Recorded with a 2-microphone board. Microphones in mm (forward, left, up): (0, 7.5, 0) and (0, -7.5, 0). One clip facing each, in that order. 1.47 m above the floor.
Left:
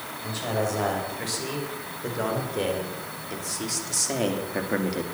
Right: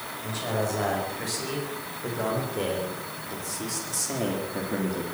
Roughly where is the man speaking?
Centre.